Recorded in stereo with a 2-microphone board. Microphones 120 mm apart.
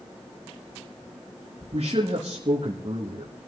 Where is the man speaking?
55° right (ahead or behind), 2.5 m.